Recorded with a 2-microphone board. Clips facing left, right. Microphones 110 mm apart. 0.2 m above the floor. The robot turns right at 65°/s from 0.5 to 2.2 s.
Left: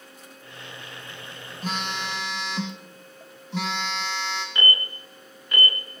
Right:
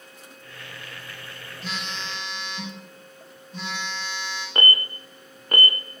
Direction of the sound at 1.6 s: 40° left.